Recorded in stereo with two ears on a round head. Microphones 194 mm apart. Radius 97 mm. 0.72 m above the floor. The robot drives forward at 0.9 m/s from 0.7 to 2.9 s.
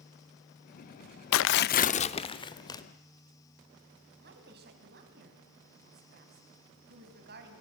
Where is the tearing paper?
70° left (ahead or behind), 0.5 m; by 2.8 s 20° left (ahead or behind), 1.6 m.